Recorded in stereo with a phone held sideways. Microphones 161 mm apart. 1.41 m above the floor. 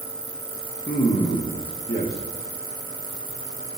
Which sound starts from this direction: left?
A man speaking, at 0.9 s.